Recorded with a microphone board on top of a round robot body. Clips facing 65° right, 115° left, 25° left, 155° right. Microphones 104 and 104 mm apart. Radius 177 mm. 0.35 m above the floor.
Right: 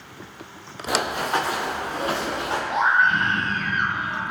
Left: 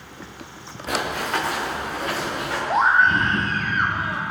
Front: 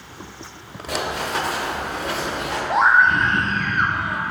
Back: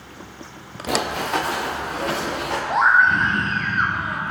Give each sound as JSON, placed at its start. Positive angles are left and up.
{"t": 0.9, "sound": "running footsteps", "azimuth_deg": -145, "distance_m": 3.5}
{"t": 2.7, "sound": "a scream", "azimuth_deg": 110, "distance_m": 1.4}